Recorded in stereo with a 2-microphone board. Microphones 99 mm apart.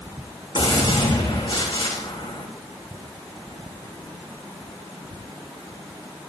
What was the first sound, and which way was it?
A gunshot, 50° left (ahead or behind).